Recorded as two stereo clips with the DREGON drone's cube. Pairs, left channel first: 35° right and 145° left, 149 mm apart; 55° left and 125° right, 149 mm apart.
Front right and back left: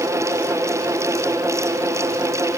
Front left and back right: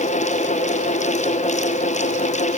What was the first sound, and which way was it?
Only background noise.